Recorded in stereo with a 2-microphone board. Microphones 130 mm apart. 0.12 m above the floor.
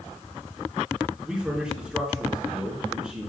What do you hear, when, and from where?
1.2 s a man speaking: 5° right (ahead or behind), 1.6 m